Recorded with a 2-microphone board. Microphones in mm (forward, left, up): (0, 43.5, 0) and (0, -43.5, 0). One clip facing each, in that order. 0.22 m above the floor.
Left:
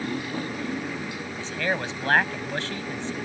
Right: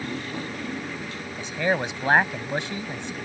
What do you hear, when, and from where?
0.0 s a motorcycle: 10° left (ahead or behind); by 3.2 s 15° left (ahead or behind)
1.4 s a man speaking: 15° right (ahead or behind)